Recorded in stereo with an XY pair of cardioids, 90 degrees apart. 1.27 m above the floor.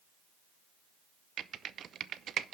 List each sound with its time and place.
1.4 s typing on a keyboard: 65° right, 0.6 m